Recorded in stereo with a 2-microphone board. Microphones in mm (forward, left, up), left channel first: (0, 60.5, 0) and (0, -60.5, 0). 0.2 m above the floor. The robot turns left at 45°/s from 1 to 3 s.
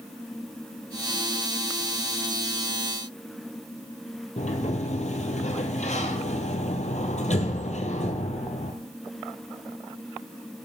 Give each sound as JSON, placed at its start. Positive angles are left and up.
{"t": 4.4, "sound": "a sliding door", "side_deg": 75, "distance_m": 1.2}